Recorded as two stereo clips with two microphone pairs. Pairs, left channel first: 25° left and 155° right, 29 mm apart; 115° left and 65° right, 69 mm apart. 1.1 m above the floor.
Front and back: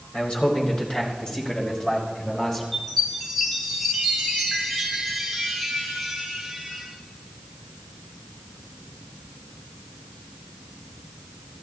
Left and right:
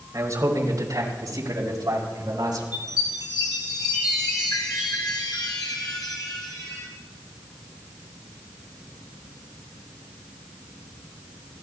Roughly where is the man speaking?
Ahead right.